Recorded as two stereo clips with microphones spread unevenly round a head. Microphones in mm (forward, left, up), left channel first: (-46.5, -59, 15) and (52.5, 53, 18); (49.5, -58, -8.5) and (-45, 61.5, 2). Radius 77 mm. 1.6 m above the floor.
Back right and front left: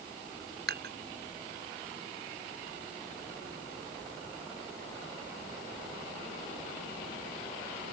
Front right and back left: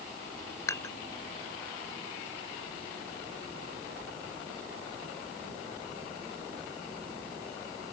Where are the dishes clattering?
20° left.